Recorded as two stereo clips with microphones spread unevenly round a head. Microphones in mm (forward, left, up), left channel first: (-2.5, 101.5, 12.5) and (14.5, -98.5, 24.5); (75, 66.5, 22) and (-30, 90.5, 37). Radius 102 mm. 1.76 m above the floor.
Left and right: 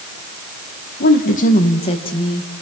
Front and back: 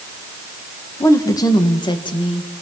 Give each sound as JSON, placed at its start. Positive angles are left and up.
{"t": 1.0, "sound": "a woman speaking", "azimuth_deg": 50, "distance_m": 2.0}